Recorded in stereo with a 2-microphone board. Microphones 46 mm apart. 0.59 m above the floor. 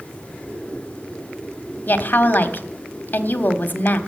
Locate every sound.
1.9 s a woman speaking: 45° left (ahead or behind), 1.2 m